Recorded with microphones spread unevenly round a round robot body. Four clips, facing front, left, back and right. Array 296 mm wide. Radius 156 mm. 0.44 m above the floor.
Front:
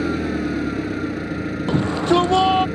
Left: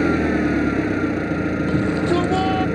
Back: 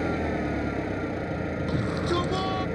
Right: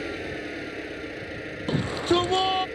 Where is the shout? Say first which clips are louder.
Left 2 dB, front 11 dB; straight ahead.